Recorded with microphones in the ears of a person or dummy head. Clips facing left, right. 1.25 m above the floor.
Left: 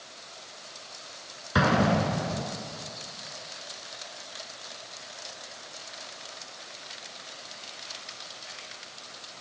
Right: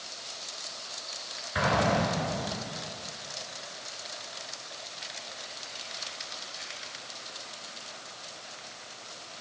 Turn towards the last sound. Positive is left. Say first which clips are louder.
# left 3 dB
turn(degrees=75)  # may be behind; listen again after turning